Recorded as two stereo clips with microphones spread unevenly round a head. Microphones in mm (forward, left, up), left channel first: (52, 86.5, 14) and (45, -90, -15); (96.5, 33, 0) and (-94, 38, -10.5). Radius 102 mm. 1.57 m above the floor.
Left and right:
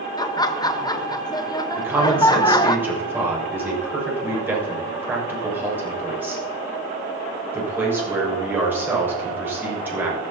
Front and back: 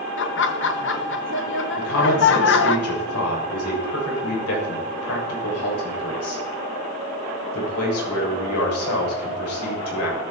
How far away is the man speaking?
About 6.5 m.